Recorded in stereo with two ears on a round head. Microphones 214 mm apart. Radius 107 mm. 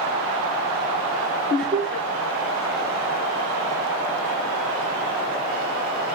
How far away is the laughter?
About 1.2 m.